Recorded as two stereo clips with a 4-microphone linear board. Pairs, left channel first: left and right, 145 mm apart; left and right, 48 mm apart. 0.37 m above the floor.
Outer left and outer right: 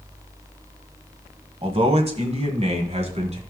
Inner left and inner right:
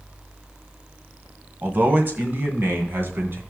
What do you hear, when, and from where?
1.6 s a man speaking: 40° right (ahead or behind), 1.8 m; by 3.4 s 50° right (ahead or behind), 3 m